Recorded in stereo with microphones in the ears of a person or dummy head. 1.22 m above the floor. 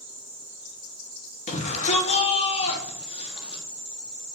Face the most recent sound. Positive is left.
turn(degrees=30)  # may be behind; listen again after turning